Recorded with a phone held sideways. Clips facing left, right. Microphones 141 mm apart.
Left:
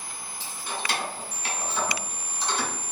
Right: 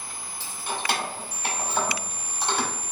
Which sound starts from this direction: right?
Keys jangling, at 0.4 s.